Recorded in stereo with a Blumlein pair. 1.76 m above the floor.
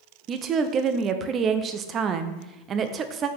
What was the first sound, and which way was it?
A woman speaking, 25° right.